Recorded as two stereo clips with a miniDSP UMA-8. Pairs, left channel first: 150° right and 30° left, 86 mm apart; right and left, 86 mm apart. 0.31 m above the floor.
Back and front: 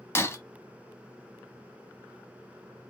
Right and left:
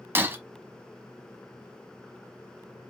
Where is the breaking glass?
150° left, 0.8 m.